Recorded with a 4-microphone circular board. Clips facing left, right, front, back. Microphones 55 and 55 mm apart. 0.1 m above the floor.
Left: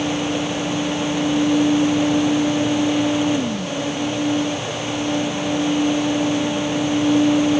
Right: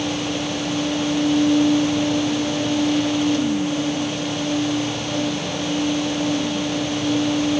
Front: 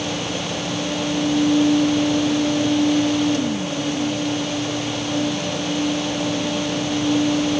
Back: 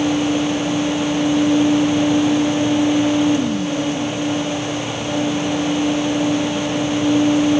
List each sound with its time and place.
Only background noise.